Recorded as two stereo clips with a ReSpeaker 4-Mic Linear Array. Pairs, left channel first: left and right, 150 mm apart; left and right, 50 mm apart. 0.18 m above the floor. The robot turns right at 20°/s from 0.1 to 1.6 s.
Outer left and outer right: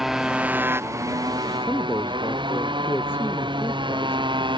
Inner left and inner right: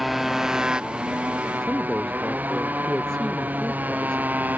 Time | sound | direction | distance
0.0 | a motorcycle | straight behind | ?
1.6 | a man speaking | 15° left (ahead or behind) | ?